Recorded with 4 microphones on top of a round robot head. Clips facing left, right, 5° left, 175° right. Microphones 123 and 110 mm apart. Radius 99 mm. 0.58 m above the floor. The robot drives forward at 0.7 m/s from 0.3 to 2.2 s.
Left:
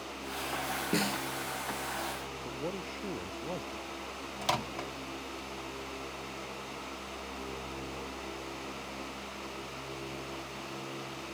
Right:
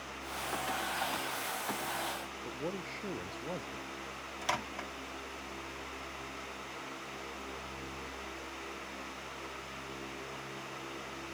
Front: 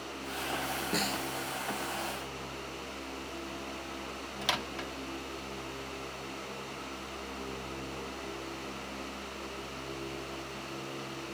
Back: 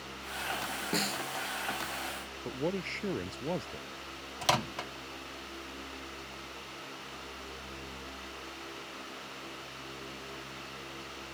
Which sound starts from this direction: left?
A snare drum, at 0.9 s.